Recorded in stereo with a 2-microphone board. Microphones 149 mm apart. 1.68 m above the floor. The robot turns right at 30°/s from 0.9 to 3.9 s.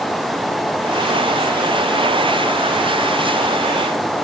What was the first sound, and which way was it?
Only background noise.